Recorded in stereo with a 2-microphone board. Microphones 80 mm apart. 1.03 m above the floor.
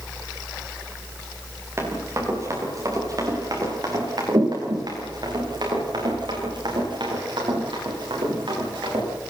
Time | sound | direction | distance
1.8 | running footsteps | 35° right (ahead or behind) | 8.5 m